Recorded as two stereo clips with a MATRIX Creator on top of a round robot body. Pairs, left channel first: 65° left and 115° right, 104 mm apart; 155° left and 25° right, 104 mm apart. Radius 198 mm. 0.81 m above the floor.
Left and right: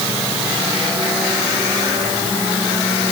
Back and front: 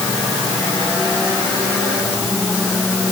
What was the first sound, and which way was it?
Only background noise.